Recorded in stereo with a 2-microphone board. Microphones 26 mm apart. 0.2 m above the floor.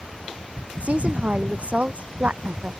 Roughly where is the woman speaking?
Right.